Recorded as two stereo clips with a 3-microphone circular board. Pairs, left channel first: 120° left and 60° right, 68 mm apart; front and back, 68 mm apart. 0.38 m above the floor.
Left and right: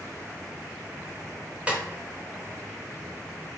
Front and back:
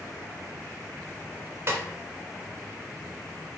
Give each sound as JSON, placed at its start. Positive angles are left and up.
{"t": 1.7, "sound": "a snare drum", "azimuth_deg": -130, "distance_m": 1.0}